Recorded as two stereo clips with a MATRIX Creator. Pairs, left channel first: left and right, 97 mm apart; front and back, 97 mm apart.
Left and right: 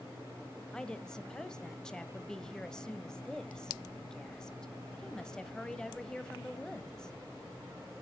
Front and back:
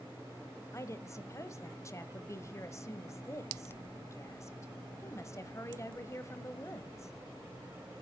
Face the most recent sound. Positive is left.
turn(degrees=15)